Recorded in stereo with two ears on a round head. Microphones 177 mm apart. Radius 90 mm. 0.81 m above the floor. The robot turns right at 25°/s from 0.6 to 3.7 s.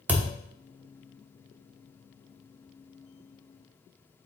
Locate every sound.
0.1 s a thud: 10° right (ahead or behind), 0.8 m